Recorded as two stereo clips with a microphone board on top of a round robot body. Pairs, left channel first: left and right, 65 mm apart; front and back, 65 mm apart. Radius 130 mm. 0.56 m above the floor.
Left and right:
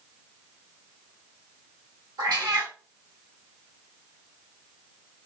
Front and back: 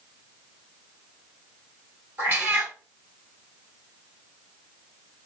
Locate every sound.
2.2 s a cat meowing: 120° right, 1.3 m